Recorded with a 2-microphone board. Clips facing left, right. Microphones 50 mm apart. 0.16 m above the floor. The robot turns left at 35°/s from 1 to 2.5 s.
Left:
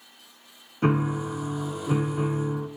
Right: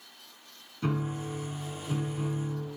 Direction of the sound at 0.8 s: 105° left.